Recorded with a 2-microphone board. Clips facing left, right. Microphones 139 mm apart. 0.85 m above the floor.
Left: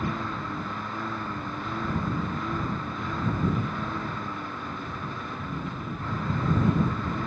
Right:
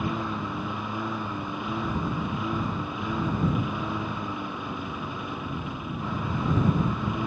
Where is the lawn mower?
10° right (ahead or behind).